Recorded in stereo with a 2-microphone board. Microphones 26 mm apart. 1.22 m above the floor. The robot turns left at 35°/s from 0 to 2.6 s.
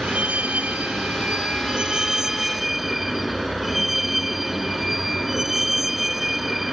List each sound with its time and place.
0.0 s a vehicle: 80° right; by 6.7 s 170° right